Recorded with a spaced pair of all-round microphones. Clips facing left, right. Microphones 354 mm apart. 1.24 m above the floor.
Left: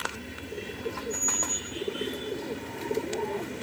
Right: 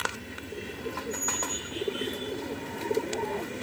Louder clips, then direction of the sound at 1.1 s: Even; centre (ahead or behind).